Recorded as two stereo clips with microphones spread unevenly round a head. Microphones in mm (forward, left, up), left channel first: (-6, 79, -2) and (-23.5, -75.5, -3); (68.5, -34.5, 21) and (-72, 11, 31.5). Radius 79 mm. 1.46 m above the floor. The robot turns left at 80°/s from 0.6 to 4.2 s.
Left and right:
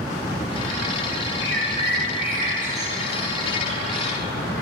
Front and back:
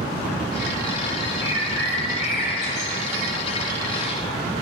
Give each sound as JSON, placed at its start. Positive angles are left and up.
{"t": 1.4, "sound": "a bird", "azimuth_deg": 100, "distance_m": 2.5}